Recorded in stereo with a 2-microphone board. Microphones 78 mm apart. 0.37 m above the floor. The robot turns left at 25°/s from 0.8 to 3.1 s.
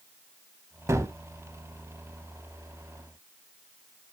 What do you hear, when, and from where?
0.9 s a gunshot: 40° right (ahead or behind), 0.5 m; by 1.1 s 50° right (ahead or behind), 0.5 m